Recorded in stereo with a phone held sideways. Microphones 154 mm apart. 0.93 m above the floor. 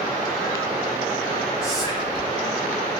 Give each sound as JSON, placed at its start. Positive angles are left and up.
{"t": 1.6, "sound": "whispering", "side_deg": -5, "distance_m": 1.0}